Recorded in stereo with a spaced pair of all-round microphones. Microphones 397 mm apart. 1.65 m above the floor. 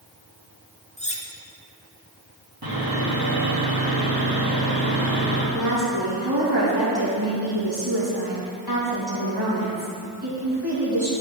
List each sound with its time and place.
1.0 s cutlery clinking: 15° left (ahead or behind), 0.7 m
2.6 s sawing: 65° right (ahead or behind), 2 m
5.5 s a woman speaking: 70° right (ahead or behind), 2.5 m